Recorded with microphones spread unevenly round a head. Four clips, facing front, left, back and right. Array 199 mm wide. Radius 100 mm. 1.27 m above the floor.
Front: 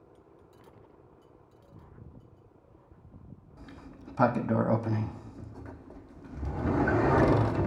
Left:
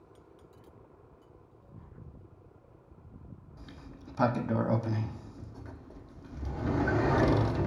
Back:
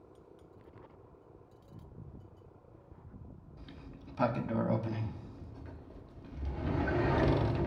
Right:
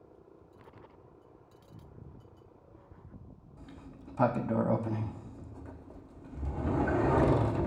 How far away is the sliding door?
About 0.9 m.